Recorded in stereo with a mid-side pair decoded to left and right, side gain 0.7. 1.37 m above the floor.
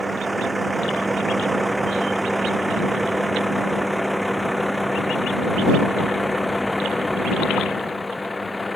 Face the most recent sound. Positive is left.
turn(degrees=15)